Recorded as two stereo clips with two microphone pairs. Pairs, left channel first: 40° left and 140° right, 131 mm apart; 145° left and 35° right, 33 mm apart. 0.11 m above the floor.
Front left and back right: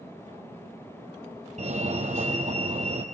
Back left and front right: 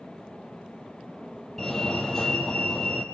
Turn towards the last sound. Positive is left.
turn(degrees=-135)